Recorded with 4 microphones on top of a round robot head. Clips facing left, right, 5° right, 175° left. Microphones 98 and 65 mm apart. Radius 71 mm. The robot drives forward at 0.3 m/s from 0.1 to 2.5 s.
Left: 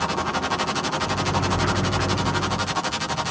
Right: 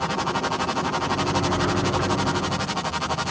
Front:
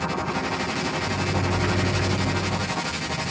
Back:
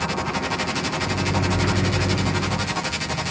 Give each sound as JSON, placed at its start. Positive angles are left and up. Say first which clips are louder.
{"t": 1.0, "sound": "a microwave", "louder": "right 1 dB, back 2 dB", "azimuth_deg": -160, "distance_m": 1.9}